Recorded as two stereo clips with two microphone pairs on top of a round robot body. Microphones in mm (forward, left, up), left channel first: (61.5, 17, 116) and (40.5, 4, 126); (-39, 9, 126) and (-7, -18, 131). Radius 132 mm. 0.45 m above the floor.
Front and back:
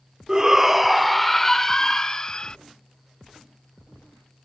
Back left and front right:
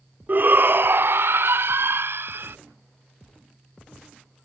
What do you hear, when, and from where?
0.3 s a shout: 70° right; by 2.6 s 15° right